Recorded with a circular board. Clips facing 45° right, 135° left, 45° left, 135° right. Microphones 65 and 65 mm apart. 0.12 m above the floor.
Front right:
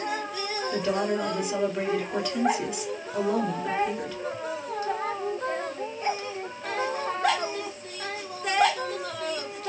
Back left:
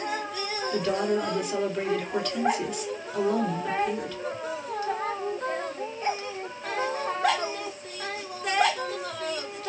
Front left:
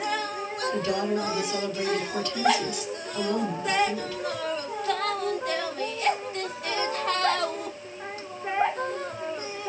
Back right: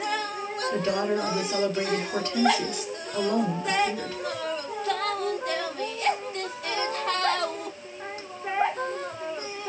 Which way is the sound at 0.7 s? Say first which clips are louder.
Back left 1 dB, back right 1 dB; 125° right.